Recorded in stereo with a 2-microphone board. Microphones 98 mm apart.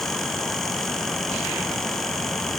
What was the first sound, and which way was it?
Only background noise.